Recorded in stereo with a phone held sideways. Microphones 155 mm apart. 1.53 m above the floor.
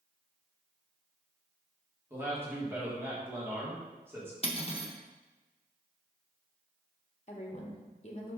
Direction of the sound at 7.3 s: 45° left (ahead or behind).